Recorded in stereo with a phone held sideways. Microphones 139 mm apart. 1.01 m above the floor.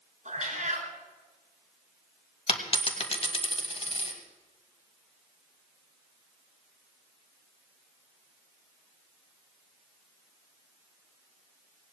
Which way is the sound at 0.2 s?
60° right (ahead or behind).